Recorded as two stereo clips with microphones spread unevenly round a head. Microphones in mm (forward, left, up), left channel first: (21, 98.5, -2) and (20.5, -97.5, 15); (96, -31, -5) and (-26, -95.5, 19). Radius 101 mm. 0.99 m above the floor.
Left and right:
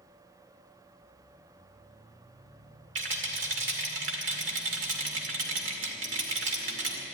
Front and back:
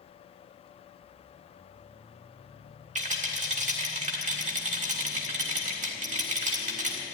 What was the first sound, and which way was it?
A rattle, 125° right.